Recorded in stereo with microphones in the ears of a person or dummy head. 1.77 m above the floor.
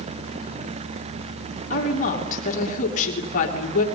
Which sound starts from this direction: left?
A woman speaking, at 1.7 s.